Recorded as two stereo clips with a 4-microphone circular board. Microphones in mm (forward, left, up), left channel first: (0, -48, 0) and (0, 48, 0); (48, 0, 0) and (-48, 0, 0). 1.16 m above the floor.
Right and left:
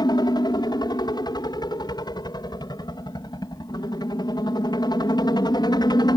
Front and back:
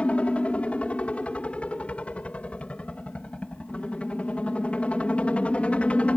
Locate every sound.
0.0 s a helicopter: 75° right